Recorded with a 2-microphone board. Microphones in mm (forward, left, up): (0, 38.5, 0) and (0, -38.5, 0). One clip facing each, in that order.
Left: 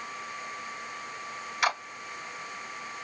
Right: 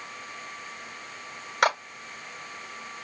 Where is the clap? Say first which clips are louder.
Right 5 dB; 80° right, 3 m.